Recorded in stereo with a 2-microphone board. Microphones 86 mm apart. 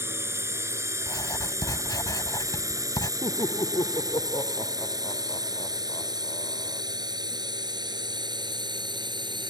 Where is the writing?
50° left (ahead or behind).